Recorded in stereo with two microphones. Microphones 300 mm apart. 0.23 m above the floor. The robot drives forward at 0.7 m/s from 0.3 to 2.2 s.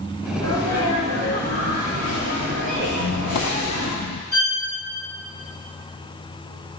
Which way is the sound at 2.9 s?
65° left (ahead or behind).